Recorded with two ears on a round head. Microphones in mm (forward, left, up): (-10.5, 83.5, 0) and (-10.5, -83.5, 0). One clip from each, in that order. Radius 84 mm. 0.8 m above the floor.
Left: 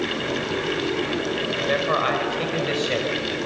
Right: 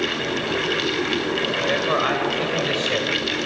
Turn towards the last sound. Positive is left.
turn(degrees=-5)  # may be behind; listen again after turning